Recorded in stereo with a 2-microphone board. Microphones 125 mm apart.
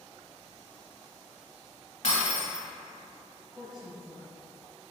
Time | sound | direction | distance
2.0 | breaking glass | 65° left (ahead or behind) | 1.6 m
3.5 | a woman speaking | centre (ahead or behind) | 1.7 m